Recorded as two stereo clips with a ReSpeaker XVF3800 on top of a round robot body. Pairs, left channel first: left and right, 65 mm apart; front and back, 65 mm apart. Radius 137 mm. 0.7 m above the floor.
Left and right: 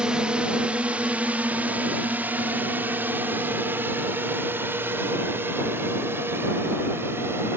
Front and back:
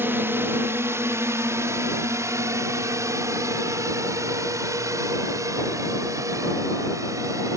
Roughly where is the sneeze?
No sneeze in this recording.